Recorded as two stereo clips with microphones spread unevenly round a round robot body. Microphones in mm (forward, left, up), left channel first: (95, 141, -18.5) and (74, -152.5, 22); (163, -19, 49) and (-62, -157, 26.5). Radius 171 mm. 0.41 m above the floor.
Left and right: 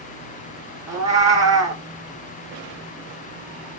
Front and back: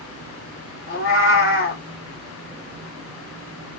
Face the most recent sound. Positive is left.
turn(degrees=-15)